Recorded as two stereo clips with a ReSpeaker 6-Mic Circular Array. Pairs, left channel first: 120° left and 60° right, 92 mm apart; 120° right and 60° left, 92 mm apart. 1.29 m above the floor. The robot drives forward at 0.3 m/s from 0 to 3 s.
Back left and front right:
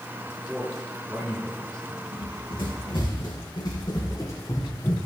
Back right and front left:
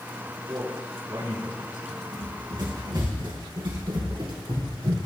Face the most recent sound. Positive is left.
turn(degrees=65)